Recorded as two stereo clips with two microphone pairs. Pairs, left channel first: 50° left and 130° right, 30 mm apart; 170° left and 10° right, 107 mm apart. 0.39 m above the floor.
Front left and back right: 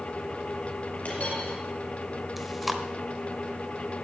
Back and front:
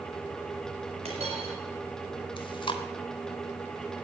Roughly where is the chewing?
Behind left.